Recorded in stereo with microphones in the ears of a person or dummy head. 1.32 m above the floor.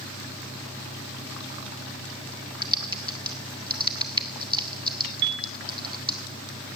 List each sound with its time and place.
2.6 s typing on a keyboard: 20° right (ahead or behind), 0.9 m
5.2 s a piano: 60° right (ahead or behind), 0.7 m